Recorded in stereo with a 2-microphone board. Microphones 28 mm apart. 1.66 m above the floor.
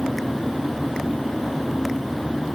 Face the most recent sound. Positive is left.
No sound to turn to.